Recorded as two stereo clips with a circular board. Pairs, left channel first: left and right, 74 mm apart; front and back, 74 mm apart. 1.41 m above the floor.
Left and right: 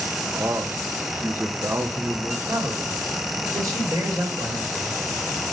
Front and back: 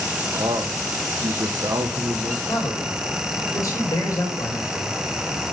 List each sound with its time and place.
0.3 s a man speaking: 145° right, 0.8 m
2.5 s a man speaking: 45° right, 3.5 m